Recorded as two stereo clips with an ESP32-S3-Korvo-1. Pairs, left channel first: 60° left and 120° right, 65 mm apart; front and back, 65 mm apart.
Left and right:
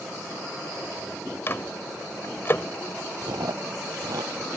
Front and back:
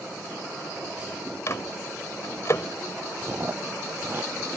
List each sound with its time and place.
1.5 s a microwave: 20° left
3.2 s chewing: 120° right